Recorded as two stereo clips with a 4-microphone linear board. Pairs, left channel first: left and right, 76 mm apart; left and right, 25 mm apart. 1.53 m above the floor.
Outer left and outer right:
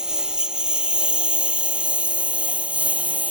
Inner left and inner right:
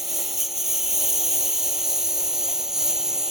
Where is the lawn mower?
10° right (ahead or behind); by 3.3 s 20° right (ahead or behind).